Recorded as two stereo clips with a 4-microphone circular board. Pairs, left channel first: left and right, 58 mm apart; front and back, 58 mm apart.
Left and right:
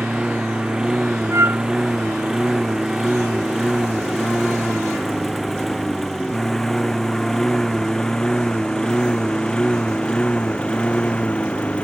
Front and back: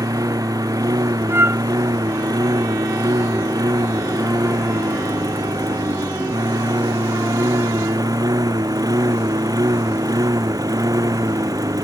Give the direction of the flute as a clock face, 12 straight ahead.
4 o'clock.